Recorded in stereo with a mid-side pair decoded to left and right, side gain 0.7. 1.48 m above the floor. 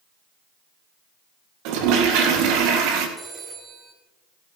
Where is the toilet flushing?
70° right, 2 m.